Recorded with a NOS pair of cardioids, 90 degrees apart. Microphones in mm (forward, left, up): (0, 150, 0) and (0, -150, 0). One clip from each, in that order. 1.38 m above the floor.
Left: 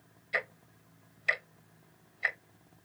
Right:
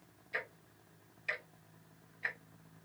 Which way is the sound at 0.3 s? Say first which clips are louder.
Left 7 dB; 40° left.